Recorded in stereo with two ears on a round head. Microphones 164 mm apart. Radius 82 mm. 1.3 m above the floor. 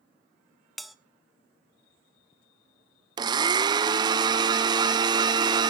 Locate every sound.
0.8 s a bell: centre (ahead or behind), 1.0 m
3.2 s a blender: 25° right (ahead or behind), 0.6 m